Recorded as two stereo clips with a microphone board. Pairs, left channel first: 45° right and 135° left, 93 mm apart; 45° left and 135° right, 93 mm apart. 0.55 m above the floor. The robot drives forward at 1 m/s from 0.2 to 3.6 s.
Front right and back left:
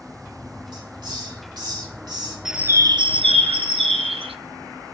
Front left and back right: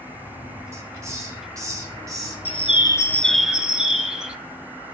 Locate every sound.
0.7 s a hiss: 170° left, 3 m; by 2.4 s 175° left, 4.5 m
2.5 s a bird: 50° left, 0.7 m; by 4.4 s 145° left, 0.9 m